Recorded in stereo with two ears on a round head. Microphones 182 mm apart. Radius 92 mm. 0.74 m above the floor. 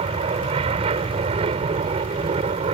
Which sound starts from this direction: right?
An aircraft, at 0.0 s.